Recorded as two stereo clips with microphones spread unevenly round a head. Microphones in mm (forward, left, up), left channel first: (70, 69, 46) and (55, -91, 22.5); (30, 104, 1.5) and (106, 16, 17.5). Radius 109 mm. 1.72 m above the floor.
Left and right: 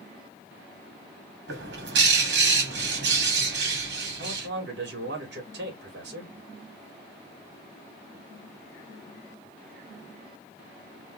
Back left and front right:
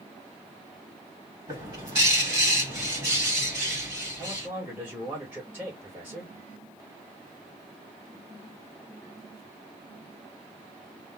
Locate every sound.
1.5 s a bird: 115° right, 2 m
4.2 s a man speaking: 130° right, 2.5 m